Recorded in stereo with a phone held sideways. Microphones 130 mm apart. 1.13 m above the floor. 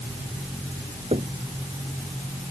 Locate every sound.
1.1 s knocking: 55° right (ahead or behind)